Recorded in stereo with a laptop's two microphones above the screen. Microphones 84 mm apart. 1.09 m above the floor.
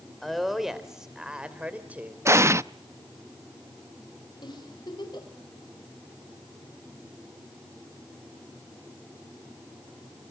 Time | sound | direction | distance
0.2 | a woman speaking | centre (ahead or behind) | 3.5 m
2.2 | an explosion | 30° right (ahead or behind) | 0.5 m
4.4 | a giggle | 60° left (ahead or behind) | 5 m